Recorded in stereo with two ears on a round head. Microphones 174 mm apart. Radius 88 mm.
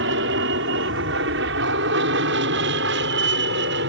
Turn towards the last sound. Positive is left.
turn(degrees=-65)  # may be behind; listen again after turning